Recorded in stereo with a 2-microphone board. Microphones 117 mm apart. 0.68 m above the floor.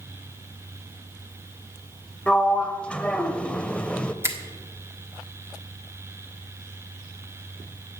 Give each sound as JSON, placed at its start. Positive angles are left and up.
{"t": 2.3, "sound": "a sliding door", "side_deg": 10, "distance_m": 0.6}
{"t": 4.2, "sound": "a finger snap", "side_deg": -20, "distance_m": 1.3}